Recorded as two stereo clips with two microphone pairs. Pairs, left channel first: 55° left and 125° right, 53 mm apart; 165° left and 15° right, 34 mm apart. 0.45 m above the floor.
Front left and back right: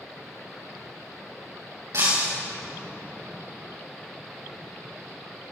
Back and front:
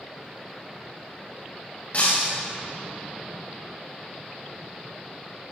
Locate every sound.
1.9 s breaking glass: 150° right, 6 m